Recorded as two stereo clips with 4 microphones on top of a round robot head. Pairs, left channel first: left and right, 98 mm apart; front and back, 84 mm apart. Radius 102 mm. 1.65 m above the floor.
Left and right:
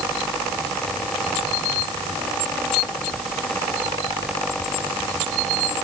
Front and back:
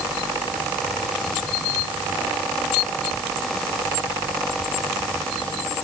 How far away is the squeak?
I don't hear a squeak.